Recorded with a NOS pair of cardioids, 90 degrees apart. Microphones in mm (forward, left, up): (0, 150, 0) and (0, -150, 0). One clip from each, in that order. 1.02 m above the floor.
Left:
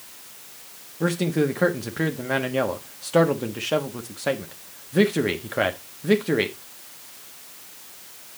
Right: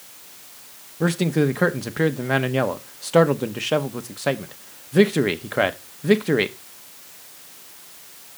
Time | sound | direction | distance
1.0 | a man speaking | 20° right | 1.3 m